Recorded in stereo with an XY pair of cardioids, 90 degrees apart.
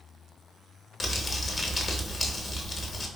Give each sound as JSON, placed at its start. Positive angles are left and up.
{"t": 1.0, "sound": "crumpling", "azimuth_deg": 40, "distance_m": 0.7}